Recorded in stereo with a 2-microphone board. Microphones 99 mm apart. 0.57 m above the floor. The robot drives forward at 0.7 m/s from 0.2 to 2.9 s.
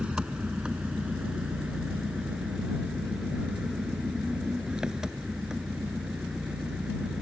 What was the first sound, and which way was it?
An engine running, 10° right (ahead or behind).